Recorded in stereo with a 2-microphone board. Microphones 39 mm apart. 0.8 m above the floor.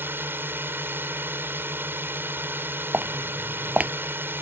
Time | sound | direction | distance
0.0 | a drone | 65° right (ahead or behind) | ?
2.9 | footsteps | 40° right (ahead or behind) | ?